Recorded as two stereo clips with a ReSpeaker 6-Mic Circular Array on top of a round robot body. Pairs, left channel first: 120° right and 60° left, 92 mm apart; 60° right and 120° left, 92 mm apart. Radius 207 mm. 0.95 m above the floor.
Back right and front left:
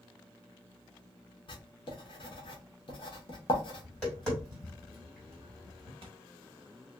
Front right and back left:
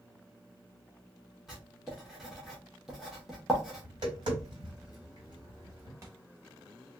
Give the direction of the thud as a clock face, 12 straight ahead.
10 o'clock.